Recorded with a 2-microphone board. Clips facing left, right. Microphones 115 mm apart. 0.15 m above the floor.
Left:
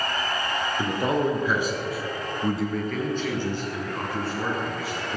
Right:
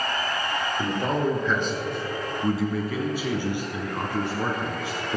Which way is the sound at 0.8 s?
15° left (ahead or behind).